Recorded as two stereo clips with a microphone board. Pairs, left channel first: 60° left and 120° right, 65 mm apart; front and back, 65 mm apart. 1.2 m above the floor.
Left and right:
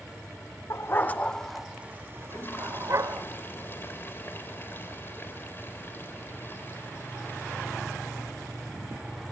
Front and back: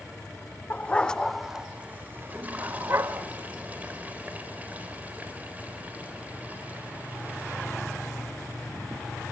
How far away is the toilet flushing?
About 3.5 m.